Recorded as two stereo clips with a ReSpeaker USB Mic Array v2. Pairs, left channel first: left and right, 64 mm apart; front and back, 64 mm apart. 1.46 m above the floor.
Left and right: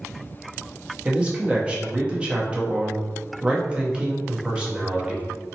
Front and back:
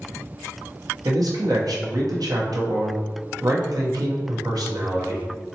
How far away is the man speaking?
About 0.9 m.